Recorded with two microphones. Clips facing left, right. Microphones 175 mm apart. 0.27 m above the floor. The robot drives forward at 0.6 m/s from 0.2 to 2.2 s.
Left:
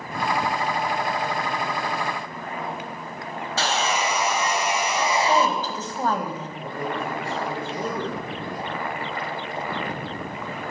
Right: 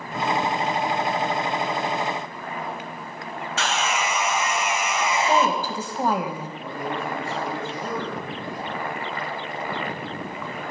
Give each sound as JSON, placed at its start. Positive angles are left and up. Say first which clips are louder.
{"t": 3.6, "sound": "sawing", "louder": "left 1 dB", "side_deg": 35, "distance_m": 0.6}
{"t": 5.3, "sound": "a woman speaking", "louder": "even", "side_deg": -10, "distance_m": 1.3}
{"t": 6.6, "sound": "a man speaking", "louder": "left 1 dB", "side_deg": 50, "distance_m": 5.5}